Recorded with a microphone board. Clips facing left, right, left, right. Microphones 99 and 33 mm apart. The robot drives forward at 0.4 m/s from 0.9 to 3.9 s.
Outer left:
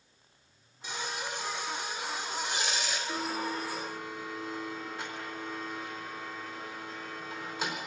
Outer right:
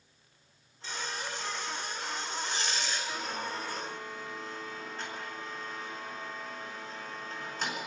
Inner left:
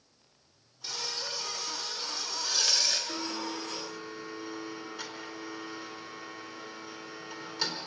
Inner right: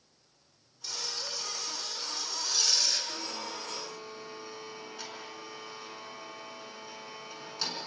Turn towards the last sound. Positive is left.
turn(degrees=10)  # may be behind; listen again after turning